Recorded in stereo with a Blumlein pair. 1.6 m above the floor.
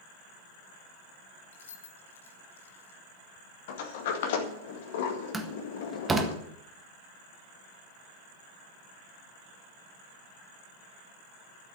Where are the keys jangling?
65° left, 1.5 m.